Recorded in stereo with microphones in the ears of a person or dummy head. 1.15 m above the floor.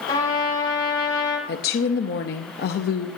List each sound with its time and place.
0.1 s a trumpet: 25° left (ahead or behind), 7.5 m
1.5 s a woman speaking: 50° left (ahead or behind), 0.8 m